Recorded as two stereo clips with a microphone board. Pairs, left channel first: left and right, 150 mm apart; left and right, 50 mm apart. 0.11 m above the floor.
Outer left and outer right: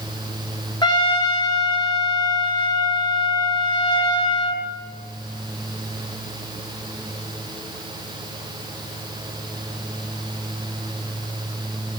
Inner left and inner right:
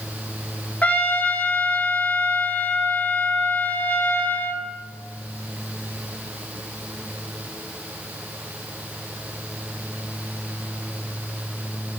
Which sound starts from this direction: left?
A trumpet, at 0.8 s.